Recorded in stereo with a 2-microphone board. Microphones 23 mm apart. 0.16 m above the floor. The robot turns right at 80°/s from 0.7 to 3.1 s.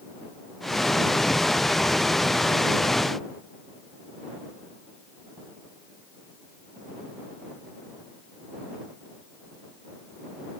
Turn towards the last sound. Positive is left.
No sound to turn to.